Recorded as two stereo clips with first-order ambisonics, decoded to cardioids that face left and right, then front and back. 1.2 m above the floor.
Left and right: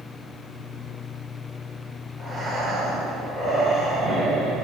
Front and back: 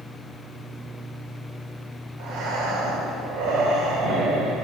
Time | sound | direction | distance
2.2 | breathing | 170° right | 2.5 m